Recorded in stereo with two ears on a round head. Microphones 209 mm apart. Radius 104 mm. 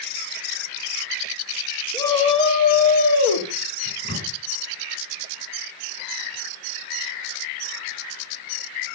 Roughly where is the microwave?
Left.